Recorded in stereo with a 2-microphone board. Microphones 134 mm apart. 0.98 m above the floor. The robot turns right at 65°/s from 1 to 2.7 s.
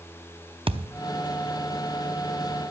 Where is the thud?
45° right (ahead or behind), 0.6 m.